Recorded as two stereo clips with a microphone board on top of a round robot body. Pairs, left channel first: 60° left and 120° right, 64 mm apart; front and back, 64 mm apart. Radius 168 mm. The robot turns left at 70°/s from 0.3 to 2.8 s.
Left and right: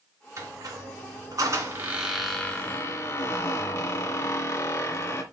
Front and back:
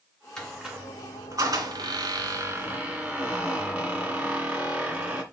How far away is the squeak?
About 2.5 m.